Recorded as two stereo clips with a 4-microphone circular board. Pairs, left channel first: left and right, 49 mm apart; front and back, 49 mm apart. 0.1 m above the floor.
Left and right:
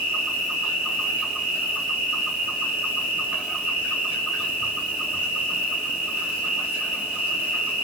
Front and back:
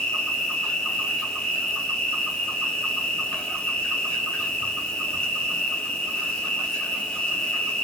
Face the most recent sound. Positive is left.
turn(degrees=-50)